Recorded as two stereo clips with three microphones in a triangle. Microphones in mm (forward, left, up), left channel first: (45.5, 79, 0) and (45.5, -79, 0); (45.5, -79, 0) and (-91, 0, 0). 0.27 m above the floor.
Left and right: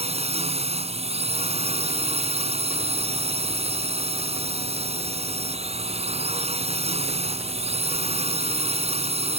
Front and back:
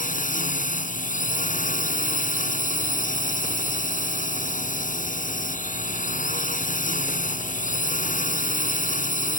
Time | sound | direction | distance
0.0 | a drone | 50° right | ?